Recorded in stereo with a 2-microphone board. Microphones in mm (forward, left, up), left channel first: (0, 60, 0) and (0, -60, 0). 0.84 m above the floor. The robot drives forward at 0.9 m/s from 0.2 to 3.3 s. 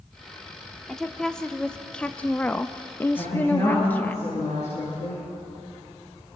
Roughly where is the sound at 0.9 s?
Centre.